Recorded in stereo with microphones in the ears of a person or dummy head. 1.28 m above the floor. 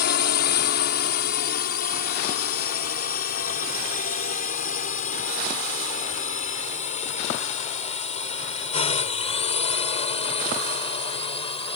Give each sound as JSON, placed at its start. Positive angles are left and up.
{"t": 0.0, "sound": "a drone", "side_deg": 50}